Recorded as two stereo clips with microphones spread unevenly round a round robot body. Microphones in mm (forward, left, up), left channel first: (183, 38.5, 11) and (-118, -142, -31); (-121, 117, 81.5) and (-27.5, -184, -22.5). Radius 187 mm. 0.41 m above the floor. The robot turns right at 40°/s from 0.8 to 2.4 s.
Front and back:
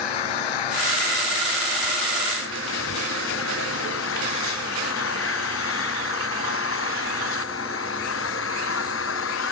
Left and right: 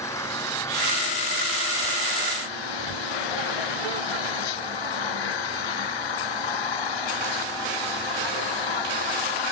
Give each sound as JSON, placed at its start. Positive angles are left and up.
{"t": 0.0, "sound": "an engine running", "azimuth_deg": 25}